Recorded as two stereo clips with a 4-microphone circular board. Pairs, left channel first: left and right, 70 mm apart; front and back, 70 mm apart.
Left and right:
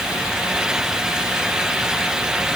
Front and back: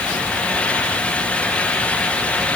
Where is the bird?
No bird in this recording.